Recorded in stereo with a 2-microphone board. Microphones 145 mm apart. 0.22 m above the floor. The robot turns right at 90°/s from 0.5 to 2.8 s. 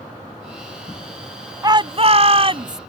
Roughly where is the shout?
Behind right.